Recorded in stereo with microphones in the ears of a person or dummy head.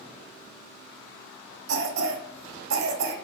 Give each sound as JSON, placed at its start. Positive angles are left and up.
{"t": 1.7, "sound": "a cough", "side_deg": -70, "distance_m": 0.8}